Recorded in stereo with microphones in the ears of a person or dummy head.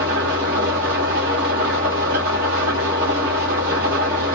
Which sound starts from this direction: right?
An engine running, at 0.0 s.